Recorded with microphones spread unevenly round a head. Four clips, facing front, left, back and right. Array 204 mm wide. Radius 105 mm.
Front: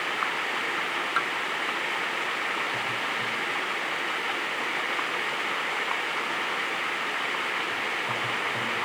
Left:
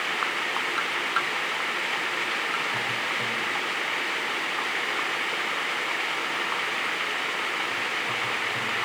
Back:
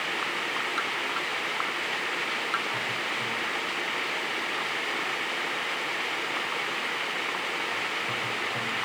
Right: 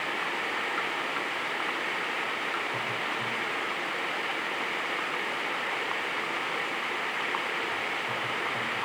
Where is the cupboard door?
No cupboard door in this recording.